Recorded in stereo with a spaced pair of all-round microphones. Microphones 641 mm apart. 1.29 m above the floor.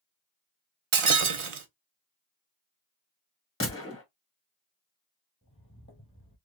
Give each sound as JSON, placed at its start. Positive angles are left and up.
{"t": 0.9, "sound": "breaking glass", "side_deg": -55, "distance_m": 0.6}
{"t": 3.6, "sound": "a gunshot", "side_deg": 20, "distance_m": 1.2}
{"t": 5.4, "sound": "footsteps", "side_deg": 10, "distance_m": 1.6}